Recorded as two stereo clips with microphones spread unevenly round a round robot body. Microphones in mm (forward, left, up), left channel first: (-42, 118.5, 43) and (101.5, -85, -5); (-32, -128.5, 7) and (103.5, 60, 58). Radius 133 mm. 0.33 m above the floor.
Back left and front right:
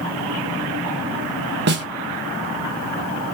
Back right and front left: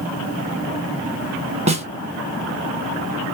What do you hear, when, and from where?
1.7 s a snare drum: 5° right, 0.6 m